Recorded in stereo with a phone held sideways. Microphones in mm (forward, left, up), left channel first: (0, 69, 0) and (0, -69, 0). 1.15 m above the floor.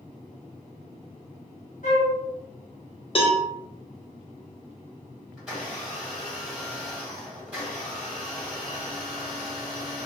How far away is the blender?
About 1.4 m.